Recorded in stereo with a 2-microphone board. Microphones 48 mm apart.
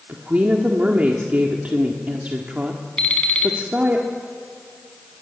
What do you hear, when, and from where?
0.1 s a woman speaking: 30° right (ahead or behind), 1.6 m
3.0 s an alarm clock: 20° left (ahead or behind), 3 m